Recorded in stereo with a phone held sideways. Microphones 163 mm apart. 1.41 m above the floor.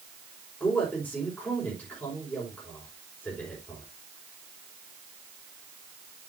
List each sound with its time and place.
0.6 s a man speaking: 10° left (ahead or behind), 4.5 m